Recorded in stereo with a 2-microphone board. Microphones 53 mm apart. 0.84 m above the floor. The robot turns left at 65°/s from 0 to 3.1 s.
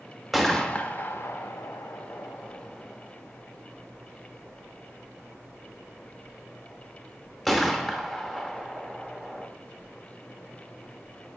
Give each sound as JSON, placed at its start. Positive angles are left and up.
{"t": 0.3, "sound": "a gunshot", "side_deg": -5, "distance_m": 0.8}